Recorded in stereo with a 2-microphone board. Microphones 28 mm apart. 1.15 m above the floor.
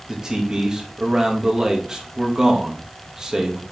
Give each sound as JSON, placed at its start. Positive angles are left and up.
{"t": 0.1, "sound": "a man speaking", "side_deg": -20, "distance_m": 1.8}